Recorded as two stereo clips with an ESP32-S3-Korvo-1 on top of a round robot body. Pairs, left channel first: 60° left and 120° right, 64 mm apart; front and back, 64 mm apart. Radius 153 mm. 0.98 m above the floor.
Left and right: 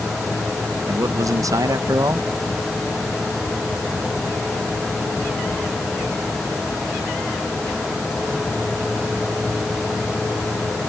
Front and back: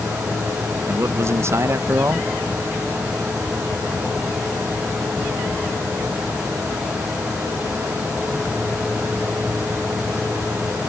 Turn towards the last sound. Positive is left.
turn(degrees=-135)